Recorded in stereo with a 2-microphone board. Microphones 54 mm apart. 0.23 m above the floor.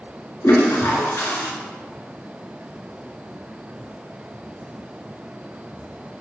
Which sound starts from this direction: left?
A toilet flushing, at 0.4 s.